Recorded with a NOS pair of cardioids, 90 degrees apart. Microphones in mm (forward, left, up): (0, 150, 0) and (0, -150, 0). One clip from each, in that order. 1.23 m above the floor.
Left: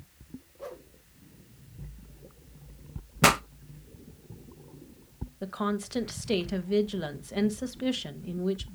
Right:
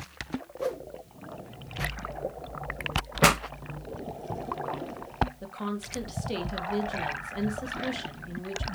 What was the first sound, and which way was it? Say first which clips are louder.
A whoosh: right 10 dB; 60° right.